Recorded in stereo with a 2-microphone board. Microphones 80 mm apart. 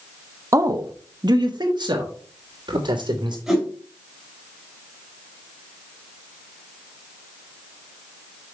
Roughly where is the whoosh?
Centre.